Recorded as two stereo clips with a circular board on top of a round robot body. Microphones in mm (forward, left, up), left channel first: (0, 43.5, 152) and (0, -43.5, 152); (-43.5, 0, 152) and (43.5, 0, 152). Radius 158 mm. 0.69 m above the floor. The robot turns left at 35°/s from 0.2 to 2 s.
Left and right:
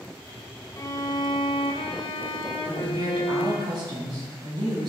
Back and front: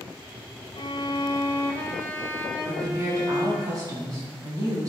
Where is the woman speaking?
50° right, 5.5 m.